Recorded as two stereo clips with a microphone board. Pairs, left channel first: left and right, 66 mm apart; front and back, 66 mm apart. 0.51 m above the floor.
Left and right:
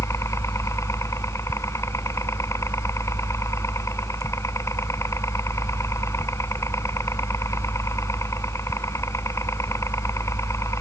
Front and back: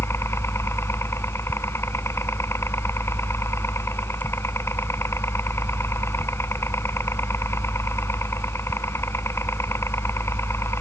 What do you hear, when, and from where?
0.0 s a helicopter: 45° left